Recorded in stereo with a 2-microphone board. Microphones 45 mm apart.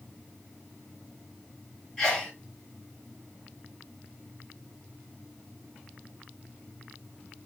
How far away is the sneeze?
About 1.9 m.